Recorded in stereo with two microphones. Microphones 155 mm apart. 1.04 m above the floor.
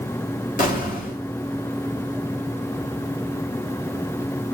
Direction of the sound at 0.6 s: 60° left (ahead or behind).